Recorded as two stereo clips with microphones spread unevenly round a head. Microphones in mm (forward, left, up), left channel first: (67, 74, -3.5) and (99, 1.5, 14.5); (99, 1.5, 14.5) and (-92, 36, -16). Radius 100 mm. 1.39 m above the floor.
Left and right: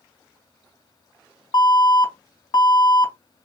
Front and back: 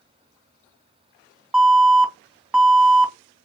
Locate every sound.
1.5 s an alarm: 85° left, 1.8 m